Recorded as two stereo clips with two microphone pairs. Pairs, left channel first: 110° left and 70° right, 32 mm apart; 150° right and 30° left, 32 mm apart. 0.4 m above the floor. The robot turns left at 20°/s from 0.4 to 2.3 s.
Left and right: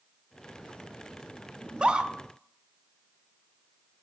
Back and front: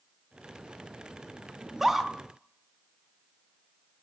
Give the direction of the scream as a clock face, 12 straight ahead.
1 o'clock.